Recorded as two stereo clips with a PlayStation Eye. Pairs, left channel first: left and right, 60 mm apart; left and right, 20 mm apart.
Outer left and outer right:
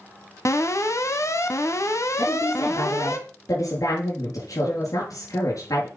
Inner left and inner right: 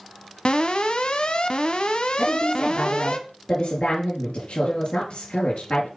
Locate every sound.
0.5 s an alarm: 55° left (ahead or behind), 1.8 m
2.2 s a woman speaking: 65° left (ahead or behind), 6 m